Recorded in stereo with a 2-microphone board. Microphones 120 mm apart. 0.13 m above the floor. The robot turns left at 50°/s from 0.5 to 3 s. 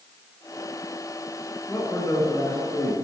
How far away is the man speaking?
About 1.7 m.